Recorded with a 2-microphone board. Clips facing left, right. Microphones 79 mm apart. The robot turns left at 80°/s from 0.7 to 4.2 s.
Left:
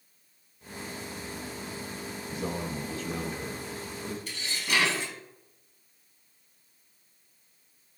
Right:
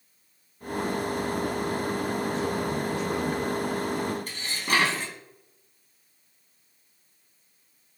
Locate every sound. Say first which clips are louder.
2.3 s a man speaking: right 6 dB; 20° left, 1.4 m; by 4.2 s 130° right, 1.4 m
4.3 s dishes clattering: right 4 dB; 45° right (ahead or behind), 1.8 m